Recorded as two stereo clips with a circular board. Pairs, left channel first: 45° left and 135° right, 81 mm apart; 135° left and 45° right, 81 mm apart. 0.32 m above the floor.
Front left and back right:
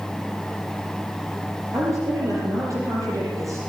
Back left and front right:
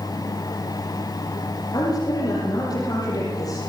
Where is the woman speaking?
175° left, 9 m.